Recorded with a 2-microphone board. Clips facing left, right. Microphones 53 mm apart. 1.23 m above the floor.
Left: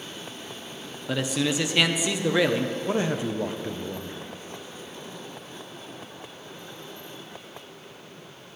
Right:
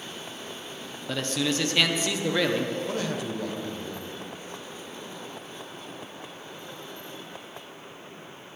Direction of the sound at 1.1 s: 10° left (ahead or behind).